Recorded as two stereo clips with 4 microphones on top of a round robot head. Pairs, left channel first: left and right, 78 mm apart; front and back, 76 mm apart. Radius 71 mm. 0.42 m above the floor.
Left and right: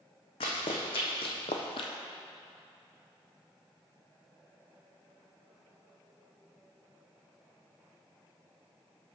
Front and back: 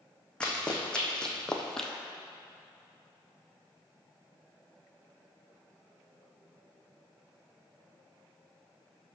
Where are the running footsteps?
75° left, 1.6 m; by 1.9 s 85° left, 0.7 m.